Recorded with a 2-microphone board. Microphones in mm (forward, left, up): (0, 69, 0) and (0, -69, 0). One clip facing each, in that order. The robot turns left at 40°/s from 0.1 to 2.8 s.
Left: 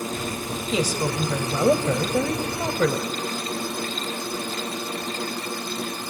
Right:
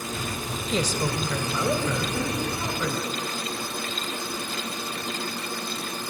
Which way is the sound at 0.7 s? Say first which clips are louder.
Left 2 dB; 175° left.